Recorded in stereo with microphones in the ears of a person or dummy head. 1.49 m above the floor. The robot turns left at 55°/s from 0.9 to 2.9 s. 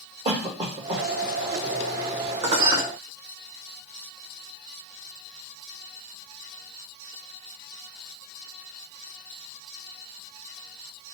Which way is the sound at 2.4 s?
20° right (ahead or behind).